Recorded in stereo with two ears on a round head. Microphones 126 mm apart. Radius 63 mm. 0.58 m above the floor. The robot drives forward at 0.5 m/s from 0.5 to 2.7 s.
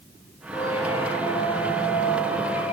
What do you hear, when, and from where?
0.5 s a squeak: 40° left (ahead or behind), 6.5 m; by 2.7 s 45° left (ahead or behind), 6 m